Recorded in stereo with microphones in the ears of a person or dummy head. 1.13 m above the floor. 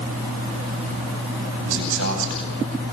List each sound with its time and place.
1.6 s a man speaking: 70° right (ahead or behind), 9 m